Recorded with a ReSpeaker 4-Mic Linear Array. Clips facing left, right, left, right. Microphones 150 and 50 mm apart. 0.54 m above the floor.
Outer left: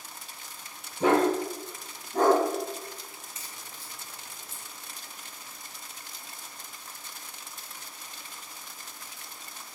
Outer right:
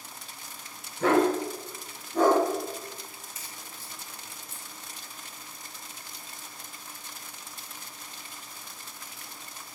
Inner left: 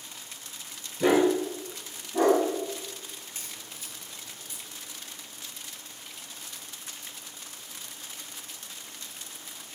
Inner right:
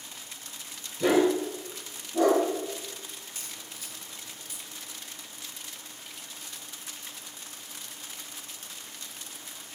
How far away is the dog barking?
About 0.6 m.